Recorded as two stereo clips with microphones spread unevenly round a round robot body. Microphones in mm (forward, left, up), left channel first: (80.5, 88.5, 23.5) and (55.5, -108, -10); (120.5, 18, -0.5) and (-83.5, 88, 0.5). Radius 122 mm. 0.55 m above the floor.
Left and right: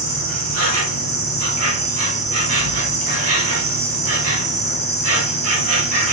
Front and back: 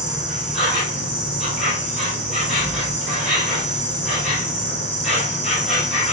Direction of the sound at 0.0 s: 110° right.